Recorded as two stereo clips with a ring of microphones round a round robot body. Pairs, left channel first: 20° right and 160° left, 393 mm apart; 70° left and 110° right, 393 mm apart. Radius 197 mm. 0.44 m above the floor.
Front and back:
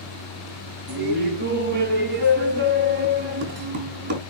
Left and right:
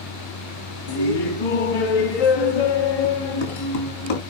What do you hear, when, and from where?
0.9 s laughter: 95° left, 3 m